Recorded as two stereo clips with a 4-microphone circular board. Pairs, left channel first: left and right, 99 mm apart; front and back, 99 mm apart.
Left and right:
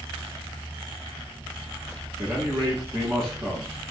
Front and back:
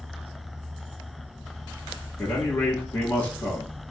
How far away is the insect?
About 2 m.